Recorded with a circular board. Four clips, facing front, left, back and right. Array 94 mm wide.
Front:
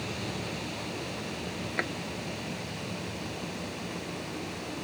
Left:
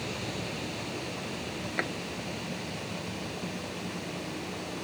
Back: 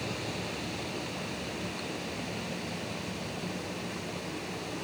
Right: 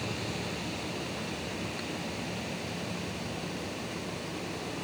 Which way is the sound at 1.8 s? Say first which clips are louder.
Left 5 dB, front 5 dB; 40° left.